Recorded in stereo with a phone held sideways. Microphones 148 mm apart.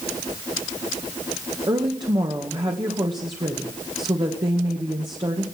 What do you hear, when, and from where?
1.7 s a woman speaking: 30° right (ahead or behind), 1.7 m